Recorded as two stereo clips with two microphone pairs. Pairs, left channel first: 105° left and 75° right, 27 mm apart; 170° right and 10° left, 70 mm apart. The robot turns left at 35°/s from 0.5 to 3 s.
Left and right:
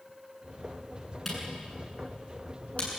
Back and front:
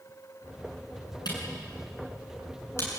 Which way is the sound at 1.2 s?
165° right.